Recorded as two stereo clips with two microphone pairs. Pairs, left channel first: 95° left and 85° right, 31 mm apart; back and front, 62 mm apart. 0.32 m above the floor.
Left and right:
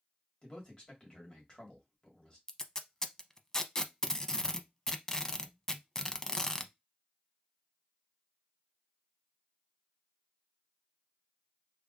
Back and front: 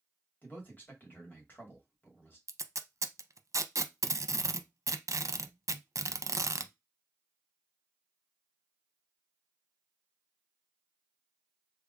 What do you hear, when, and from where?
0.4 s a man speaking: 135° left, 1.9 m
2.5 s tape being pulled: 25° left, 0.5 m